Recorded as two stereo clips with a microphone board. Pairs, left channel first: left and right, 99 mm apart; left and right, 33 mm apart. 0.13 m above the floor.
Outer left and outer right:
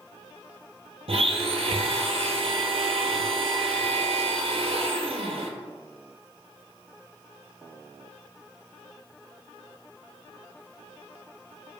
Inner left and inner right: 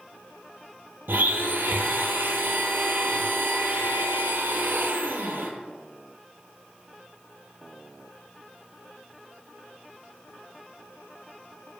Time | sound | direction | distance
1.1 | a blender | 80° right | 0.5 m